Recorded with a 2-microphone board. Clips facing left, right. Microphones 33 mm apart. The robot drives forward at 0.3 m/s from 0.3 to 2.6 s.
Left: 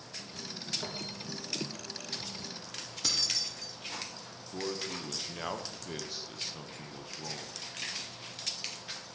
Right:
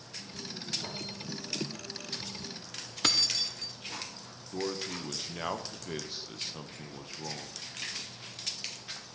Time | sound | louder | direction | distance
0.8 | footsteps | left 1 dB | 75° left (ahead or behind) | 5 m
3.0 | keys jangling | right 5 dB | 55° right (ahead or behind) | 0.6 m
4.5 | a man speaking | right 2 dB | 10° right (ahead or behind) | 0.6 m